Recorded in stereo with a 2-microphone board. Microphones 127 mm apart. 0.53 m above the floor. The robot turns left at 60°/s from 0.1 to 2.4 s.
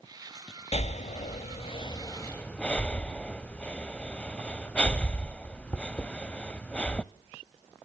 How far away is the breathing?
About 0.5 m.